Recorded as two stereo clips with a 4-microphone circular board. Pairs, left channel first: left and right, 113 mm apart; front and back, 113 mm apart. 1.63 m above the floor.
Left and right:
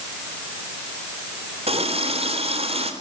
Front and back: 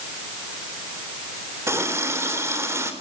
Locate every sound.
1.7 s a running tap: 115° right, 3.5 m